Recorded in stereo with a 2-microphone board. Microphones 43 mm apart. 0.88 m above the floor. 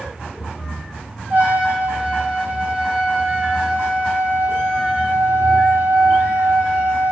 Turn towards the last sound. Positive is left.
turn(degrees=-50)  # may be behind; listen again after turning